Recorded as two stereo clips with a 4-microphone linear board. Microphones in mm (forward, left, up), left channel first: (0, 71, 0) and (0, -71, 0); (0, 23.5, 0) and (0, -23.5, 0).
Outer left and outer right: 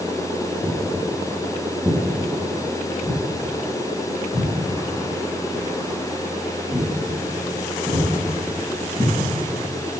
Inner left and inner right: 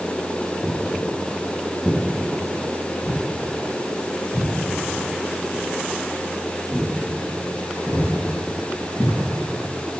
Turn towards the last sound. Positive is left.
turn(degrees=-25)  # may be behind; listen again after turning